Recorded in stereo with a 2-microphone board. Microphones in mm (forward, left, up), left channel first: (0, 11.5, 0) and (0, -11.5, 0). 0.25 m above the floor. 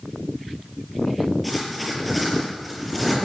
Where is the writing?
Centre (ahead or behind), 6.5 m.